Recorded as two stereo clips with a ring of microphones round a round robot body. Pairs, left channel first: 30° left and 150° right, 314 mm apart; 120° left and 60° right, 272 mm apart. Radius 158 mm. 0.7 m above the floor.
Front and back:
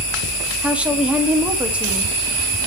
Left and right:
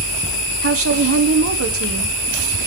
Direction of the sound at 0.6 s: 65° right.